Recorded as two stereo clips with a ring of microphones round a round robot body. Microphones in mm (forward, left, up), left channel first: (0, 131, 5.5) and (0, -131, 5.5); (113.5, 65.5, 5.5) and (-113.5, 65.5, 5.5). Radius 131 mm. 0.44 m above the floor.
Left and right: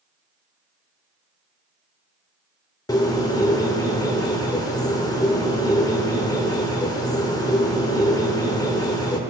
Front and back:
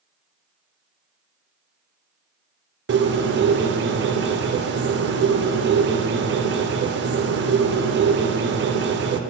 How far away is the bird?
About 0.7 m.